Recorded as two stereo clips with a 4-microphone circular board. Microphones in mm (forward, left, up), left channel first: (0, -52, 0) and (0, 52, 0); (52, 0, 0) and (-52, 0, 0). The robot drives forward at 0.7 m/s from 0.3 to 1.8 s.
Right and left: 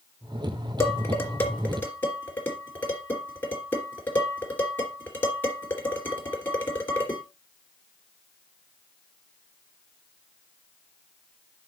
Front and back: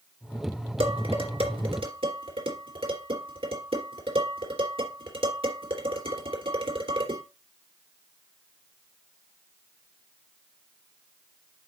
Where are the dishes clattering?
155° right, 2.5 m; by 7.2 s 160° right, 3 m.